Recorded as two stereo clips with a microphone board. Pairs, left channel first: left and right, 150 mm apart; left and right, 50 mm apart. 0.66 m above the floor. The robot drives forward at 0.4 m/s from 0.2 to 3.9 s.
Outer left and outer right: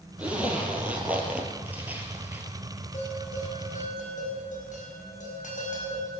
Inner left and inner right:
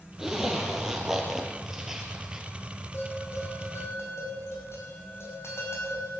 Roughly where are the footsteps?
No footsteps in this recording.